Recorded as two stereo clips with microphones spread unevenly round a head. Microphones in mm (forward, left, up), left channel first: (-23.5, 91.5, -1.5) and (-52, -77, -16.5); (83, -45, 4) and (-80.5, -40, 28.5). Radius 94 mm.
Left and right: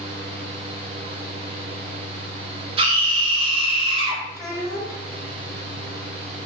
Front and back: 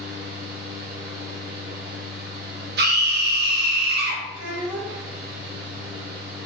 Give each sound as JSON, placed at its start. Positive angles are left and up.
{"t": 0.0, "sound": "a fan", "azimuth_deg": -155, "distance_m": 3.0}
{"t": 2.8, "sound": "a scream", "azimuth_deg": -160, "distance_m": 2.0}
{"t": 4.3, "sound": "a child speaking", "azimuth_deg": -175, "distance_m": 2.5}